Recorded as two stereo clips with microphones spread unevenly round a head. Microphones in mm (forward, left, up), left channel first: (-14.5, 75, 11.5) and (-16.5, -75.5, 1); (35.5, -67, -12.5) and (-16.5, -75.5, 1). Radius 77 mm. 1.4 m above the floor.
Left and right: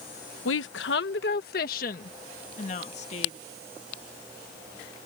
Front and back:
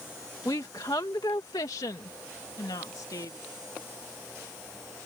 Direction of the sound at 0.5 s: 75° left.